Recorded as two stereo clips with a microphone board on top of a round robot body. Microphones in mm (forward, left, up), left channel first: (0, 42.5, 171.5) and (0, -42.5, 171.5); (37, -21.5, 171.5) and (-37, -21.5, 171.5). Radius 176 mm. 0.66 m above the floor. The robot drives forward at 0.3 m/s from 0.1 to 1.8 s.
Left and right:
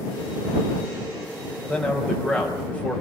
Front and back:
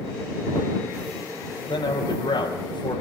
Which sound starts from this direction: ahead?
A man speaking, at 1.7 s.